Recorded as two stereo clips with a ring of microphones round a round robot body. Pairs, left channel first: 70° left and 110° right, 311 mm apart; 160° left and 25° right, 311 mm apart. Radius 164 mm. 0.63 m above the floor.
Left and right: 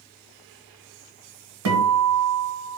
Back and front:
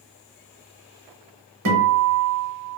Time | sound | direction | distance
1.6 | a guitar | 65° right | 1.0 m